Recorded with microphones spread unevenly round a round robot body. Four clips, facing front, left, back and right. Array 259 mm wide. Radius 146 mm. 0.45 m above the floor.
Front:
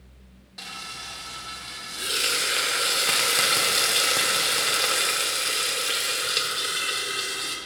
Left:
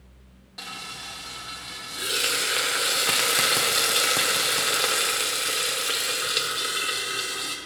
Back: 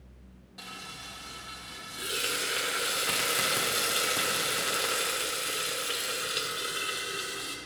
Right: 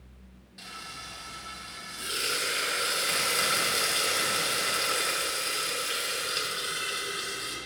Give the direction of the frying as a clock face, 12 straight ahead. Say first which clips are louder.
Left 4 dB, front 5 dB; 10 o'clock.